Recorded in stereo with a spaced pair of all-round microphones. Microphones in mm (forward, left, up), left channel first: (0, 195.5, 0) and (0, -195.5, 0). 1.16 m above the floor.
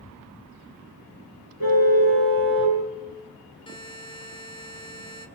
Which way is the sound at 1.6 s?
65° right (ahead or behind).